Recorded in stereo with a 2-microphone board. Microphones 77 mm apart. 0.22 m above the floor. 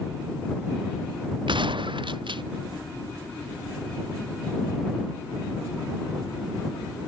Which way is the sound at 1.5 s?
75° right (ahead or behind).